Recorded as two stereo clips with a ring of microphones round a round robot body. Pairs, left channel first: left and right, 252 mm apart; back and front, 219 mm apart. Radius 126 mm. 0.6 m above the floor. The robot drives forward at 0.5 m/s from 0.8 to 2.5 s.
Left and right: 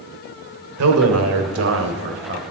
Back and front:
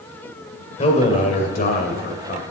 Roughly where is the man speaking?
Behind right.